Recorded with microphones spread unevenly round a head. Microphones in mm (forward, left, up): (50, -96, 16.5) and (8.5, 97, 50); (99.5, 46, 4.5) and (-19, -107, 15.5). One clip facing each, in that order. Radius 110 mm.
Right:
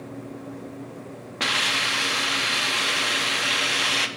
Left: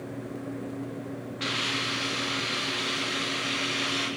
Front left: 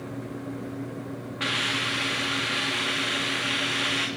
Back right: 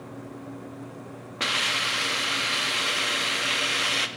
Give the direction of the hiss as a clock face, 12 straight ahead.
3 o'clock.